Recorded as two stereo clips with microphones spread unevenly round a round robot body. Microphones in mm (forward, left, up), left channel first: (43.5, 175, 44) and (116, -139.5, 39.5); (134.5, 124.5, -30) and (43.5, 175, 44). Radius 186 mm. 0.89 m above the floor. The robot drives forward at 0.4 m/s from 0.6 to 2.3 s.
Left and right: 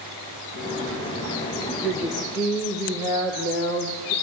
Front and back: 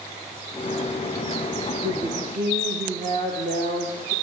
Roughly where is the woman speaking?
Behind.